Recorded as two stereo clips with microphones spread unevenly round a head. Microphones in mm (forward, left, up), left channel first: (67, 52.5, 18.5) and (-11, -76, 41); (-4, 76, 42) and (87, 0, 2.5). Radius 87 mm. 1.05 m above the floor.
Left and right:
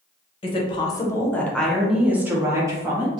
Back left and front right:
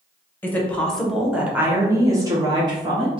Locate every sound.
0.4 s a woman speaking: 50° left, 0.9 m; by 3.2 s 55° right, 1.3 m